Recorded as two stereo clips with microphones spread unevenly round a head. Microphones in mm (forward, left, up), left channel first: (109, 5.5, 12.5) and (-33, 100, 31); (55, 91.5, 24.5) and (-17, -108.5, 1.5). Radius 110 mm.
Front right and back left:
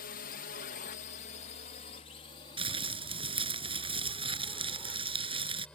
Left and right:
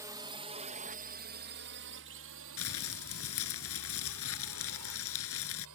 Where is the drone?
40° right; by 5.8 s 120° right.